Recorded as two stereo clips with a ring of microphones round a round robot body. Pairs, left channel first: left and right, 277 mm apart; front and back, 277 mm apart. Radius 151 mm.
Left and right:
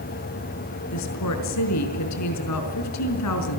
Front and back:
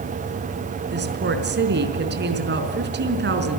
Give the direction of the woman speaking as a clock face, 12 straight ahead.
8 o'clock.